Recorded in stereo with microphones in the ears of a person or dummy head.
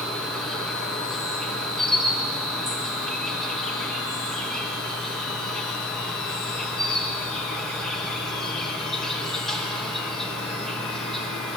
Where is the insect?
Centre (ahead or behind), 2.5 m.